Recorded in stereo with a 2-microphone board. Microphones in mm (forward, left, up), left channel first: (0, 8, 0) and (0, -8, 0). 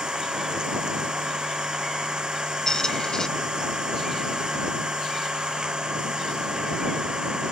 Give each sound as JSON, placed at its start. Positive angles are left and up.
{"t": 0.0, "sound": "an engine running", "side_deg": -75}
{"t": 2.7, "sound": "a squeak", "side_deg": 45}